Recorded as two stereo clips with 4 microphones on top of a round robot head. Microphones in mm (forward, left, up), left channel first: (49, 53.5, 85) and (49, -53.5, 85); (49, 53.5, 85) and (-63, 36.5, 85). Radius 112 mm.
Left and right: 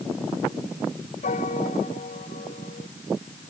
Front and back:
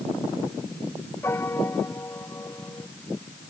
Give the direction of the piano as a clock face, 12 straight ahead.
9 o'clock.